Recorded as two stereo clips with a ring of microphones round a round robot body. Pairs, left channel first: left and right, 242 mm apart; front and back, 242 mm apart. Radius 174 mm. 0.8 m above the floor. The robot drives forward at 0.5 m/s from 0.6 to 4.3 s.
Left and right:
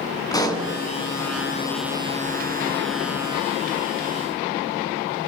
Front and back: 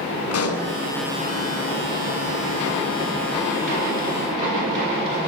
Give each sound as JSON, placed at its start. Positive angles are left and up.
{"t": 0.3, "sound": "a pop", "azimuth_deg": 15, "distance_m": 7.0}